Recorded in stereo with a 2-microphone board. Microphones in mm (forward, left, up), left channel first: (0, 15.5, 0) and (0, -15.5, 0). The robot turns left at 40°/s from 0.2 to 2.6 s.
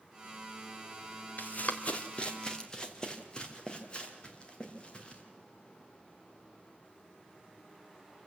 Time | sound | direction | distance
1.4 | running footsteps | 55° left (ahead or behind) | 2 m